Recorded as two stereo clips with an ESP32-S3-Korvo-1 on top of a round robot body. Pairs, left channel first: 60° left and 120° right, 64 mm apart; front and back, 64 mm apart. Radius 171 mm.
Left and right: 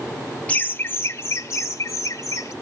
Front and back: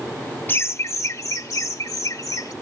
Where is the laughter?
15° left, 0.8 m; by 2.5 s 20° left, 2 m.